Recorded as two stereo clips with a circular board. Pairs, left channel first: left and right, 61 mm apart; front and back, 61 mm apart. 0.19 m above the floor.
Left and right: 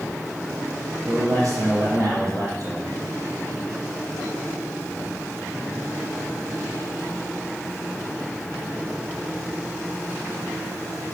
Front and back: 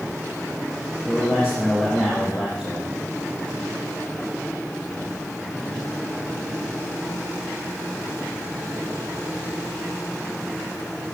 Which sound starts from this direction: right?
A man speaking, at 1.1 s.